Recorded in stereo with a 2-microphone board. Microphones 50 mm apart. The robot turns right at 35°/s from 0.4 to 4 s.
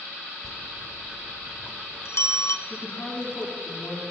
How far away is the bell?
About 0.8 m.